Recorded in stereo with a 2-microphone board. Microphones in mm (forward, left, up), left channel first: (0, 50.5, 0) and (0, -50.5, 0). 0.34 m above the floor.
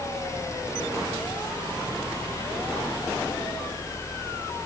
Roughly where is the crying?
No crying in this recording.